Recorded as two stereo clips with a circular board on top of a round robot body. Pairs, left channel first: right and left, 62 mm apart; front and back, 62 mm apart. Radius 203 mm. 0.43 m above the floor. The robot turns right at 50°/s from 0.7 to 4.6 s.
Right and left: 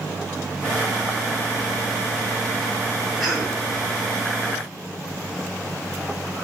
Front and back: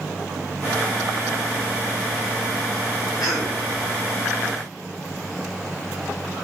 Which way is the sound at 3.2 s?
5° right.